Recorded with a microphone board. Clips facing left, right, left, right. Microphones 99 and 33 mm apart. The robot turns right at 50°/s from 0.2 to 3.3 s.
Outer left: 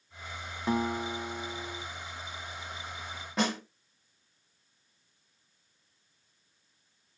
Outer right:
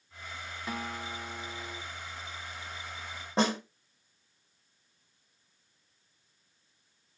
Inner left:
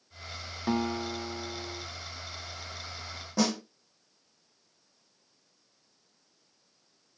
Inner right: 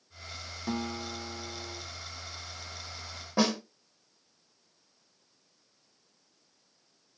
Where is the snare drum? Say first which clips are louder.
Outer right 2 dB, inner right 1 dB; 30° right (ahead or behind), 1.1 m.